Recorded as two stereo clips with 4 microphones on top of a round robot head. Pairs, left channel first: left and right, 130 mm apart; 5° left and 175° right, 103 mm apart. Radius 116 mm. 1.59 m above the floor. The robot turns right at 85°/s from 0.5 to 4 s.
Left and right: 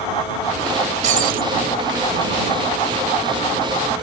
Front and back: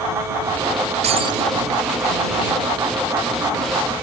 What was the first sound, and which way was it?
Breaking glass, 135° right.